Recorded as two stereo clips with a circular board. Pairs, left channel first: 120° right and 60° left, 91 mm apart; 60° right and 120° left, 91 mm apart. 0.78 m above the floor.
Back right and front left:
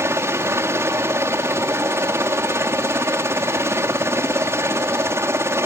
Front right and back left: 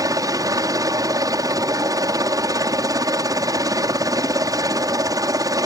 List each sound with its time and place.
0.0 s a helicopter: 105° left